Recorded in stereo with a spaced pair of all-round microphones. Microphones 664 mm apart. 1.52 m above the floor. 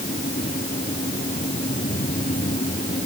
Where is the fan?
10° left (ahead or behind).